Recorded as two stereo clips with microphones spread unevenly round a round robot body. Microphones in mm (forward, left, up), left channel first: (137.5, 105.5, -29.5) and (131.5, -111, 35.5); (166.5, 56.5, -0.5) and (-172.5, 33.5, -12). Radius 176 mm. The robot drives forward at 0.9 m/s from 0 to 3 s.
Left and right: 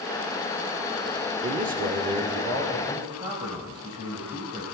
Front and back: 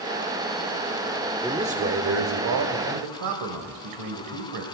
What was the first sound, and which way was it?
A man speaking, 90° right.